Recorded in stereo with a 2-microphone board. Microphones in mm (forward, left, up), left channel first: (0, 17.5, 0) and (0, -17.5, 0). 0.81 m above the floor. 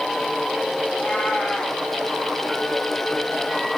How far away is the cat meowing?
About 5.5 m.